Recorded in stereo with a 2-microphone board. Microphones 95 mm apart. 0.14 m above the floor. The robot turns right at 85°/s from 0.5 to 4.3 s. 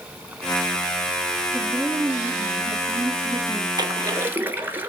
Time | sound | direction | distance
1.5 | a woman speaking | 170° left | 1.8 m
3.8 | a splash | 75° right | 0.9 m